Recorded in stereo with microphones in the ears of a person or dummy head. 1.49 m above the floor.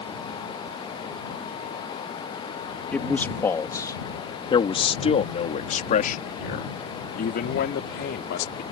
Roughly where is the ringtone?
I don't hear a ringtone.